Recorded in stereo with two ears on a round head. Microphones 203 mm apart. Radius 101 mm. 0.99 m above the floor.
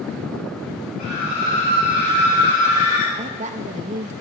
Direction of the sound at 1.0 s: 35° left (ahead or behind).